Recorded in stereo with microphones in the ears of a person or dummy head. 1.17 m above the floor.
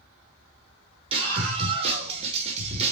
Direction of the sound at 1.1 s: 35° right (ahead or behind).